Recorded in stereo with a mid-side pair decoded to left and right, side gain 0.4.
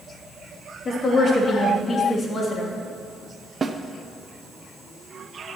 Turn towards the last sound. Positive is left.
turn(degrees=-35)